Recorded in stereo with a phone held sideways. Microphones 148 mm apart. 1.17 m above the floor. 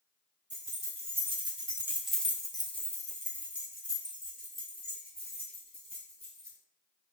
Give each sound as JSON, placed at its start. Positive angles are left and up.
{"t": 0.5, "sound": "keys jangling", "side_deg": -50, "distance_m": 1.5}